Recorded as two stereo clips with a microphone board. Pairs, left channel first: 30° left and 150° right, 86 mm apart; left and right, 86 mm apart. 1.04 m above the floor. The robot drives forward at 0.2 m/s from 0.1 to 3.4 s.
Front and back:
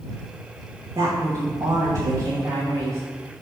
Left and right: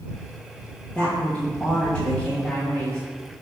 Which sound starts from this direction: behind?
A woman speaking, at 0.9 s.